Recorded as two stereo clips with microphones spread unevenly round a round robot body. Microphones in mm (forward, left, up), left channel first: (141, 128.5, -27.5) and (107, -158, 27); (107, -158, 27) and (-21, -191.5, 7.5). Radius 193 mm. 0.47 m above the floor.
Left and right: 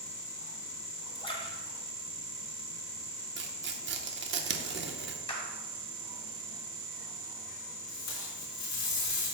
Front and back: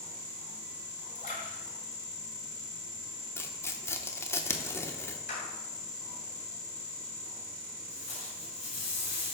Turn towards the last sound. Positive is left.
turn(degrees=60)